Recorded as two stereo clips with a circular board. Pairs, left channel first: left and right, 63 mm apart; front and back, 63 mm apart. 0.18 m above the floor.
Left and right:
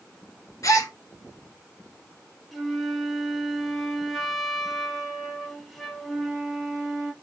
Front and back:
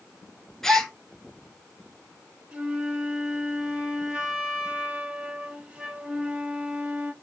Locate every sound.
0.6 s a gasp: 80° left, 0.7 m
2.5 s a flute: 175° right, 0.8 m